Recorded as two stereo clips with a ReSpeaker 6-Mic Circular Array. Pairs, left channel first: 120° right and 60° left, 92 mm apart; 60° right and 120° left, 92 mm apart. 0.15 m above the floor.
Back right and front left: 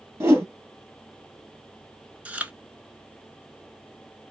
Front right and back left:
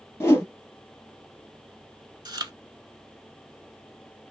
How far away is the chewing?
About 0.6 m.